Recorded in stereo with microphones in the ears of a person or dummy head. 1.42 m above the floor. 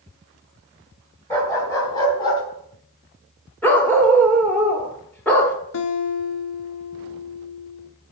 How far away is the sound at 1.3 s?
About 3 m.